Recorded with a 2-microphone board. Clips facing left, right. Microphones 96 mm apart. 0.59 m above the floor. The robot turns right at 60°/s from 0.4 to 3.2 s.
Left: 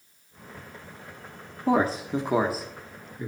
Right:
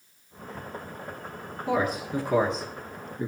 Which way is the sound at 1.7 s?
40° left (ahead or behind).